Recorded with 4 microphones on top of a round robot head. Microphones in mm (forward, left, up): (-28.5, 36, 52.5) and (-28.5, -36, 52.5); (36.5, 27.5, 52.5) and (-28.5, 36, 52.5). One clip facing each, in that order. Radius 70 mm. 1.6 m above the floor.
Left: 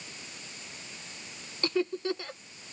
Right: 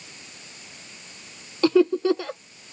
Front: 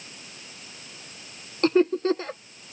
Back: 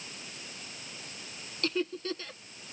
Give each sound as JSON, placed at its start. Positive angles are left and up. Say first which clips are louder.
{"t": 1.6, "sound": "laughter", "louder": "right 11 dB, front 12 dB", "azimuth_deg": -70}